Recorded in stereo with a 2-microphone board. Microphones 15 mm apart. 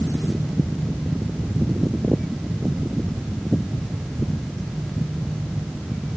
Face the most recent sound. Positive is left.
No sound to turn to.